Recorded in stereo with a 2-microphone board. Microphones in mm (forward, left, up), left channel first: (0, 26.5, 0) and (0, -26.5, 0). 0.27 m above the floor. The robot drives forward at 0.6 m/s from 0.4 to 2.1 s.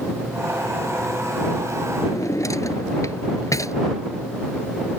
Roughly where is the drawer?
Left.